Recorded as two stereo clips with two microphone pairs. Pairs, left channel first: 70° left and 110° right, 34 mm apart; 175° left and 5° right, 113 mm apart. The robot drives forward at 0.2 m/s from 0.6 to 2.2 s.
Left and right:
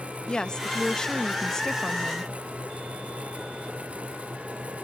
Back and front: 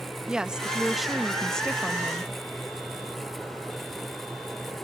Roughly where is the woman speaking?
Ahead left.